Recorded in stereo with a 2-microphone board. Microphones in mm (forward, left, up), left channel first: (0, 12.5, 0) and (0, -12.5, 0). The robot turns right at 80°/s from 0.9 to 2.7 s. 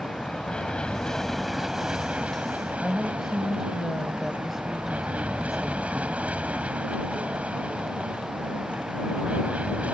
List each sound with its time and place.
0.0 s an aircraft: 130° left; by 9.9 s 85° right
2.8 s a woman speaking: 5° right (ahead or behind)